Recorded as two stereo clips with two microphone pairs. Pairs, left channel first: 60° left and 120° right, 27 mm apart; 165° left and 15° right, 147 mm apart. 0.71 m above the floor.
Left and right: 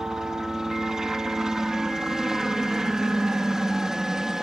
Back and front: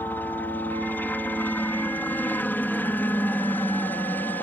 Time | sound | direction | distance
0.0 | a helicopter | 145° right | ?